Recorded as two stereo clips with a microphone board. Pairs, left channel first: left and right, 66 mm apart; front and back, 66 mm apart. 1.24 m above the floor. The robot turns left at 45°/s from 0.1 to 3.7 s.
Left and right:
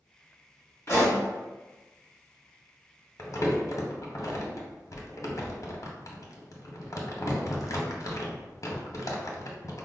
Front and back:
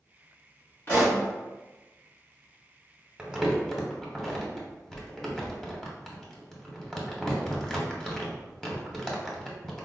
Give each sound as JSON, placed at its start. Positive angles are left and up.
{"t": 0.9, "sound": "a pop", "azimuth_deg": 50, "distance_m": 1.7}
{"t": 3.2, "sound": "crumpling", "azimuth_deg": 110, "distance_m": 0.7}